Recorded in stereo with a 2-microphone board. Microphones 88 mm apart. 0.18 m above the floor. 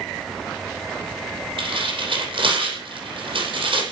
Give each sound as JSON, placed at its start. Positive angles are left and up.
{"t": 1.6, "sound": "tearing paper", "side_deg": -80, "distance_m": 5.5}